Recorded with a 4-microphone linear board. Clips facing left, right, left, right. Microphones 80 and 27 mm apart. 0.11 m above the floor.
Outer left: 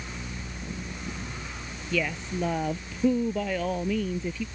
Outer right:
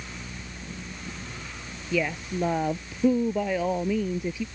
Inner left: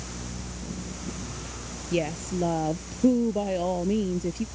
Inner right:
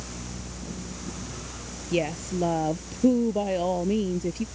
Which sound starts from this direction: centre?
A woman speaking, at 1.9 s.